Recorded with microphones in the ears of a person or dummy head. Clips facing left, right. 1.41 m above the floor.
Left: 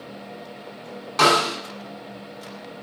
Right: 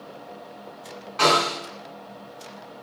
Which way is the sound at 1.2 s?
70° left (ahead or behind).